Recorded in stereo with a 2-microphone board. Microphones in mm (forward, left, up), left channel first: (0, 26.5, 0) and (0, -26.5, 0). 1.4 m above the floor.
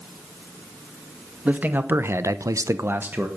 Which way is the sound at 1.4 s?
30° right (ahead or behind).